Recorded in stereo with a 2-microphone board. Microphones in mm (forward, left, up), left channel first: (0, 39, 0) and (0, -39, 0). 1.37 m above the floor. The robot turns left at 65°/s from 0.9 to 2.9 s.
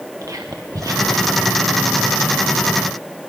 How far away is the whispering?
About 1.1 m.